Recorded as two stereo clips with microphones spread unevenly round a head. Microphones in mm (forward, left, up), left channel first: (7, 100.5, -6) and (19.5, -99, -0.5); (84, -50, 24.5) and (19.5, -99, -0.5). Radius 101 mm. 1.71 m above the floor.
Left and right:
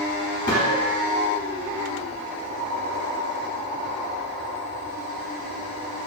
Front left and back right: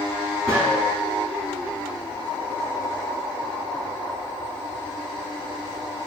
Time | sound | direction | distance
0.5 | a gunshot | 145° left | 2.5 m